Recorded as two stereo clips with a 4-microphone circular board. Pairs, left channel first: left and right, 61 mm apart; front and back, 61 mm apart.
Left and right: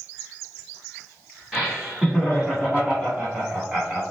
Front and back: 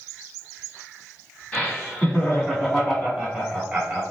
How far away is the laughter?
About 1.6 m.